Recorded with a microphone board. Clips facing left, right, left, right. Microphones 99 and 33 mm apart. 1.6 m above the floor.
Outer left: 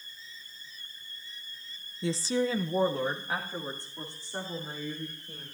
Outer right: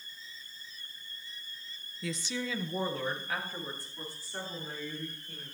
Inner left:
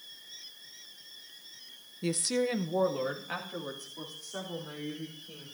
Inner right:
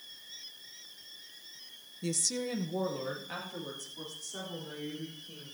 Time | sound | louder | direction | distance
2.0 | a woman speaking | outer left 8 dB, inner left 5 dB | 25° left (ahead or behind) | 0.6 m